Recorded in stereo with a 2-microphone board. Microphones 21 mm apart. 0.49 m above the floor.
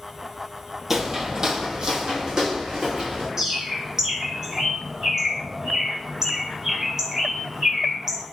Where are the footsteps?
15° right (ahead or behind), 0.6 m; by 3.3 s 40° right (ahead or behind), 2 m.